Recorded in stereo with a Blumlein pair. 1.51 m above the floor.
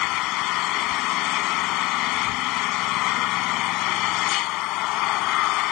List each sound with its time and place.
0.0 s an engine running: 40° left